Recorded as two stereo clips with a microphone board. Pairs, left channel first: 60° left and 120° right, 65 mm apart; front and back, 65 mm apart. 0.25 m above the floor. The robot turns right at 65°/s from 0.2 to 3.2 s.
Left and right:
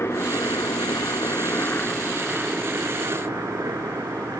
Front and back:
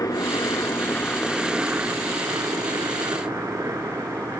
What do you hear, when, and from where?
0.0 s a helicopter: 15° left; by 4.4 s 150° right